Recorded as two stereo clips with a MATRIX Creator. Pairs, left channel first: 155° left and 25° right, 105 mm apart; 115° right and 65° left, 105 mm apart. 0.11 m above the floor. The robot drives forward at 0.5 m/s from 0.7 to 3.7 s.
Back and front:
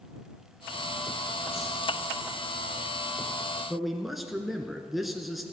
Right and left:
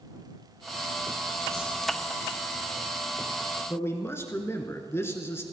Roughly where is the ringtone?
I don't hear a ringtone.